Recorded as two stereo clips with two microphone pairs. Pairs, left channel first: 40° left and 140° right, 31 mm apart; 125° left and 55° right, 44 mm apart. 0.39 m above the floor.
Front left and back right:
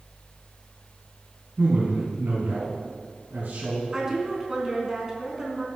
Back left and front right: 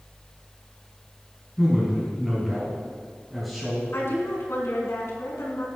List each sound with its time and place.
1.6 s a man speaking: 145° right, 3.5 m
3.9 s a woman speaking: 145° left, 3.5 m